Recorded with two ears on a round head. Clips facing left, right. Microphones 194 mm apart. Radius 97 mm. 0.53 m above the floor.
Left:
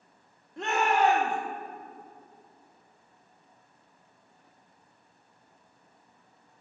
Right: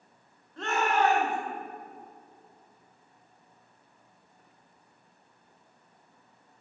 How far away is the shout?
About 0.9 m.